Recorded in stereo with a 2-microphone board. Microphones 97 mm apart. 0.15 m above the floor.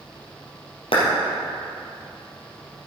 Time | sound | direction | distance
0.9 | a clap | 70° left (ahead or behind) | 3.5 m